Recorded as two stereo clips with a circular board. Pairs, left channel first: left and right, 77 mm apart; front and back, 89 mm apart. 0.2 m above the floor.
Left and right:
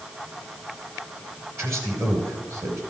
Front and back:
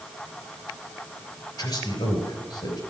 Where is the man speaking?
40° right, 3 m.